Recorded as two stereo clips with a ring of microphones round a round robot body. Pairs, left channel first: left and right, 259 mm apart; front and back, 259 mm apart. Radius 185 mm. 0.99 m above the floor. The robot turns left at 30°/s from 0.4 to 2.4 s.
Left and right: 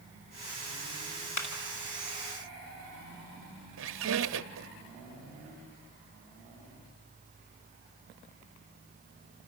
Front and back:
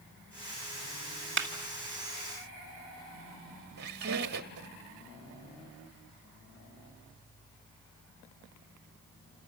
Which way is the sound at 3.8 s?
130° right.